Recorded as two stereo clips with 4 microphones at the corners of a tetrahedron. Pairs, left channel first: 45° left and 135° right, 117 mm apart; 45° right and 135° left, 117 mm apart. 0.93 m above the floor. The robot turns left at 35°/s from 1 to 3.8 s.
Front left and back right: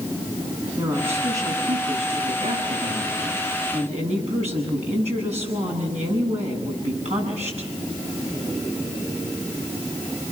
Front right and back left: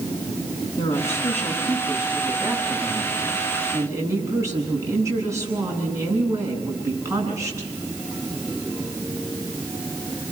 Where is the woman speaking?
60° right, 8 m; by 7.7 s 160° right, 8 m.